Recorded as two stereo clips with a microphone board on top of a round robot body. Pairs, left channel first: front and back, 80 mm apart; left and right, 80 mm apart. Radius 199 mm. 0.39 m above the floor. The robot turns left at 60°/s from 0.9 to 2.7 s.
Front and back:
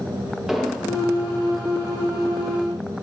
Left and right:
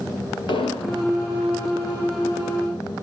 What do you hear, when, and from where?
0.5 s an explosion: 95° left, 5 m; by 1.0 s 90° left, 5 m